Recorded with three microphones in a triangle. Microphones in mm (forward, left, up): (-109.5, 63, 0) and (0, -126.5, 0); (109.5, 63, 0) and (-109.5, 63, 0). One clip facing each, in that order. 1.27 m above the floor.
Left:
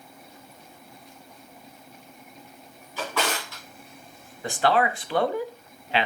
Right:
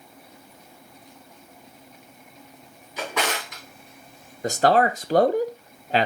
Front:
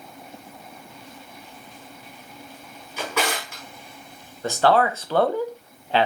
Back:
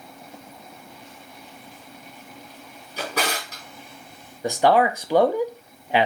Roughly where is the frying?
No frying in this recording.